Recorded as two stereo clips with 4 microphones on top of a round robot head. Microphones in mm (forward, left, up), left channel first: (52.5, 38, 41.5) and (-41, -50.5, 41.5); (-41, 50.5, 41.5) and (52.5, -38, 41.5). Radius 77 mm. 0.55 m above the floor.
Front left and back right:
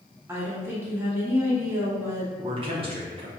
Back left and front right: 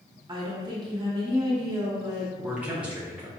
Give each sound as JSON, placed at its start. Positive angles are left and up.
{"t": 0.3, "sound": "a woman speaking", "azimuth_deg": -75, "distance_m": 1.5}
{"t": 2.4, "sound": "a man speaking", "azimuth_deg": -120, "distance_m": 0.9}